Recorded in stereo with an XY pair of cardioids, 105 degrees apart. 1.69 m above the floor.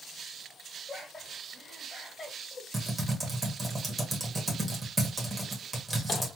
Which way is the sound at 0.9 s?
20° left.